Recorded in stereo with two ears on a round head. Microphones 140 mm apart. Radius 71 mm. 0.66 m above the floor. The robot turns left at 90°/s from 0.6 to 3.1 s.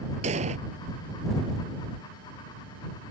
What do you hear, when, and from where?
0.2 s an explosion: 45° right (ahead or behind)